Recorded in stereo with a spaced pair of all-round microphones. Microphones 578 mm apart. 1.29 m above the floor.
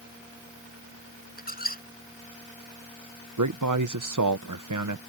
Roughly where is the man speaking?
Right.